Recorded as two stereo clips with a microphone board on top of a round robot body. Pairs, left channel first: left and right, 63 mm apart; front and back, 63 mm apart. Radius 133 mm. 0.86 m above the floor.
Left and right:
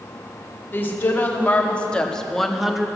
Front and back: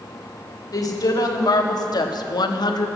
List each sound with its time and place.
0.7 s a woman speaking: 30° left, 2 m; by 2.9 s 10° right, 1.3 m